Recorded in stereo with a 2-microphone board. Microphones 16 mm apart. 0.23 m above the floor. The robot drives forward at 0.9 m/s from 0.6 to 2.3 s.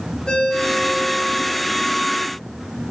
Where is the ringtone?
75° left (ahead or behind), 9 m; by 1.6 s 80° left, 9 m.